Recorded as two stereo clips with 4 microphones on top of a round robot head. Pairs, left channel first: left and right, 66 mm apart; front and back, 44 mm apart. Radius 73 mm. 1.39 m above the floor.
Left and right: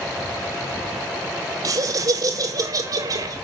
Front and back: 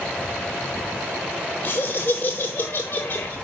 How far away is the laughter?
About 0.9 m.